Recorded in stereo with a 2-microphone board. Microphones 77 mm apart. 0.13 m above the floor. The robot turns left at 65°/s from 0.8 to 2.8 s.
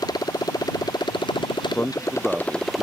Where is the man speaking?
35° left; by 2.8 s 40° right.